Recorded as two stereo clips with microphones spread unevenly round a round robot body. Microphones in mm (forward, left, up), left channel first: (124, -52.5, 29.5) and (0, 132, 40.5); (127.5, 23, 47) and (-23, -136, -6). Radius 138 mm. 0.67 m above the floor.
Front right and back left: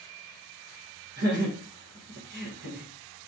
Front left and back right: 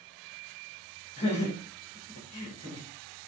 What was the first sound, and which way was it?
Laughter, 135° left.